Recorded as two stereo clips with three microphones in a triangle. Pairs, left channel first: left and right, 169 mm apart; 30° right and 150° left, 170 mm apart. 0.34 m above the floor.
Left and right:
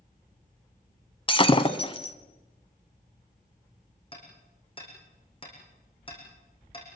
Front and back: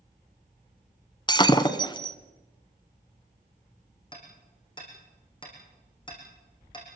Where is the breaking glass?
30° left, 1.4 m.